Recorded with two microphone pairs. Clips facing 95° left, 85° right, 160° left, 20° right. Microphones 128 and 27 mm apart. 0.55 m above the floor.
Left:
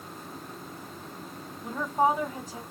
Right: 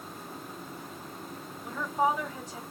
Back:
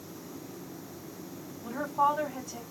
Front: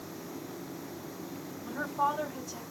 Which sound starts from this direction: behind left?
A woman speaking, at 1.6 s.